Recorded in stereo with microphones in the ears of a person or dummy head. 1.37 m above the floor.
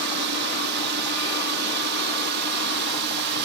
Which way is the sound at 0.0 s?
55° right (ahead or behind).